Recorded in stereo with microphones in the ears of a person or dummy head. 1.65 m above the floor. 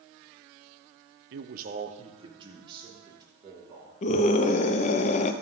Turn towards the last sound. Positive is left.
turn(degrees=35)  # may be behind; listen again after turning